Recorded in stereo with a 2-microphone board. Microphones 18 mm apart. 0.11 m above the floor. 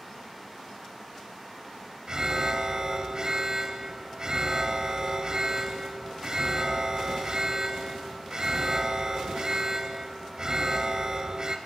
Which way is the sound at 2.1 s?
35° right (ahead or behind).